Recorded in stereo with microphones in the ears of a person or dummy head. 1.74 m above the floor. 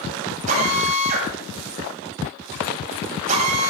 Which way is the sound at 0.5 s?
40° right (ahead or behind).